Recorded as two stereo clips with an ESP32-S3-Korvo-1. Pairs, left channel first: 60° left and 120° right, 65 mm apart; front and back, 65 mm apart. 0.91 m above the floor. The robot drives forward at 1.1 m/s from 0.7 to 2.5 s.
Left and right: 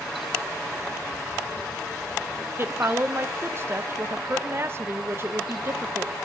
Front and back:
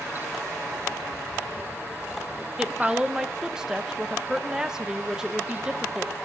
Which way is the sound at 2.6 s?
105° right.